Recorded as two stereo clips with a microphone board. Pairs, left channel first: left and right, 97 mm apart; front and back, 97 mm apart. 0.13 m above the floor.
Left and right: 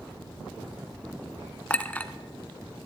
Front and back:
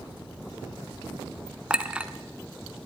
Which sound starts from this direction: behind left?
A clink, at 1.7 s.